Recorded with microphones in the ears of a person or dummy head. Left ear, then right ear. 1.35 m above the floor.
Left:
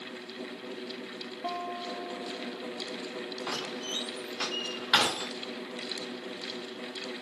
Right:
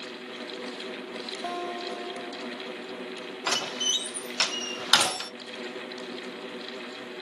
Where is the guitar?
70° right (ahead or behind), 1.0 m.